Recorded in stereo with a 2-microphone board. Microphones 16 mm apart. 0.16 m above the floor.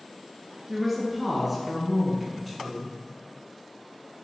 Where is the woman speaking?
5° right (ahead or behind), 2.5 m; by 2.9 s centre (ahead or behind), 1.6 m.